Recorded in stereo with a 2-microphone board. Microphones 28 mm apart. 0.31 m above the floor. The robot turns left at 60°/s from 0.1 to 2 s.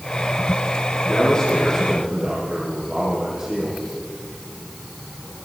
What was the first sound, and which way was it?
A man speaking, 35° left.